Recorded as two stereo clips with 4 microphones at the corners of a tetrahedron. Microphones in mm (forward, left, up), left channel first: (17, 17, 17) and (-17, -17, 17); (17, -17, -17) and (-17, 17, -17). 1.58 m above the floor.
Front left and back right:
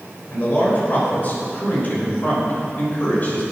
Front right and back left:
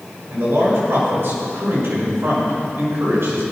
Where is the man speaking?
100° left, 6 m.